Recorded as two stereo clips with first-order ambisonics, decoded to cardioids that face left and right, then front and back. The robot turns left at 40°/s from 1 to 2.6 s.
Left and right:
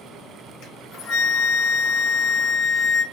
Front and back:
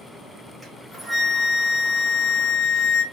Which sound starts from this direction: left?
A flute, at 0.6 s.